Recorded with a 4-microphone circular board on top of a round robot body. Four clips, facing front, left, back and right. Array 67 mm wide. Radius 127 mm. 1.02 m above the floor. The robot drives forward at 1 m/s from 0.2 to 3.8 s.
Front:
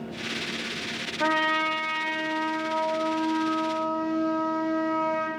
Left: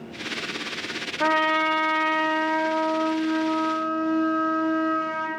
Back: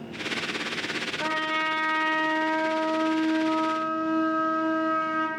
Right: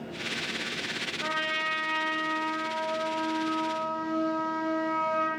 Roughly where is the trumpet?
Left.